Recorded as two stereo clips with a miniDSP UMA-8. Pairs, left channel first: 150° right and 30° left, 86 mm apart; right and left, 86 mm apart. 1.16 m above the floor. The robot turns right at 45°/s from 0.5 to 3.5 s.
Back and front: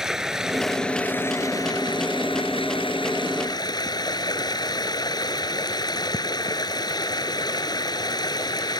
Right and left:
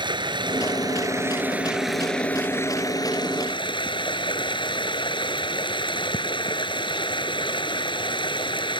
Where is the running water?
115° left; by 8.8 s 110° right.